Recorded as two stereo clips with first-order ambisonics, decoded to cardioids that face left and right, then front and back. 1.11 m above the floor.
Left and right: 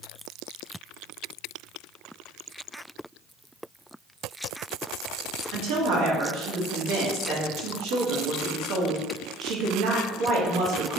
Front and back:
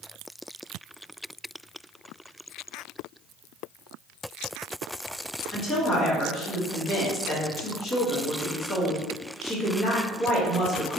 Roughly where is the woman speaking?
Ahead right.